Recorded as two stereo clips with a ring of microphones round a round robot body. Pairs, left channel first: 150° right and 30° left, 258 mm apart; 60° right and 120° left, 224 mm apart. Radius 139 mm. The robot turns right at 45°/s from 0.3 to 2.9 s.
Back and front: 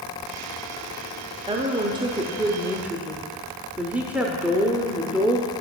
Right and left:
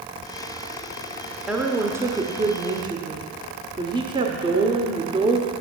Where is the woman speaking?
40° left, 0.9 m; by 5.5 s 105° left, 0.9 m.